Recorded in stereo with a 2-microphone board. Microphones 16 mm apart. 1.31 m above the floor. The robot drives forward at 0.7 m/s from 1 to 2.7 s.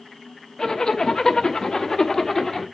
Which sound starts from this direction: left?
A zipper, at 0.6 s.